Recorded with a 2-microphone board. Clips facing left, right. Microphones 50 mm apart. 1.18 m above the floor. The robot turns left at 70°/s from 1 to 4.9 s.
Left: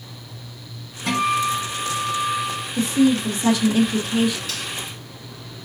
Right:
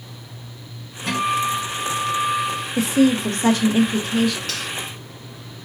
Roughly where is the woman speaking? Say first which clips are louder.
Right 1 dB; right.